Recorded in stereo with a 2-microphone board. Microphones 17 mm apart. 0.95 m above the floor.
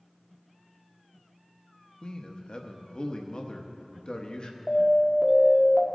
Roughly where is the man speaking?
Left.